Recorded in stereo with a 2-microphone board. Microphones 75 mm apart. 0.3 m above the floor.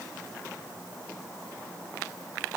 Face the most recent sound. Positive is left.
No sound to turn to.